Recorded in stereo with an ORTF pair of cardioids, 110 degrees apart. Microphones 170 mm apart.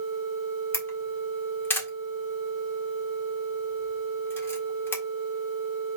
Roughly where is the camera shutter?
Ahead.